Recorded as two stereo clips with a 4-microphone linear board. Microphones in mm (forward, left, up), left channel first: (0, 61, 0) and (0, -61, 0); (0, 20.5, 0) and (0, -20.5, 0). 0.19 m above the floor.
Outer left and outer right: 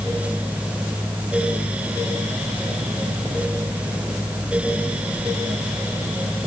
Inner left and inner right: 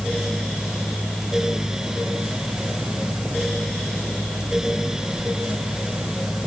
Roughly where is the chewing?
I don't hear chewing.